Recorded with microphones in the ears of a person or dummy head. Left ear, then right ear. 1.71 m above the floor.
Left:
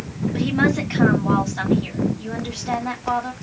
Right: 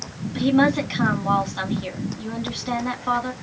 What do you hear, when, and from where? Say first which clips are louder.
0.3 s a woman speaking: right 2 dB; 15° right (ahead or behind), 2 m